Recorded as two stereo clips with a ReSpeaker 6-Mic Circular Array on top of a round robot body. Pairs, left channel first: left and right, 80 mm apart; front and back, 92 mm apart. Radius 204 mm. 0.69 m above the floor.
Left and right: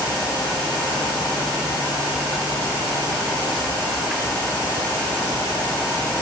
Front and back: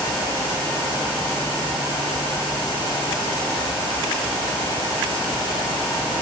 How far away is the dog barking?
I don't hear a dog barking.